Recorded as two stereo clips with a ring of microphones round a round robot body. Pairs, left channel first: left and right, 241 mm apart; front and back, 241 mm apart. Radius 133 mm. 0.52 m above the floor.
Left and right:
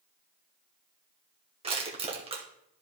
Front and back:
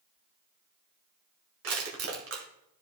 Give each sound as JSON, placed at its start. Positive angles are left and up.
{"t": 1.6, "sound": "crushing", "azimuth_deg": -155, "distance_m": 1.8}